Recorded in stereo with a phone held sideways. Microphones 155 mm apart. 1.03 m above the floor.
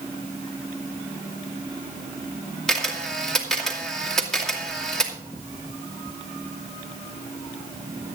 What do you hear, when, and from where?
2.7 s a camera shutter: 5° left (ahead or behind), 2.5 m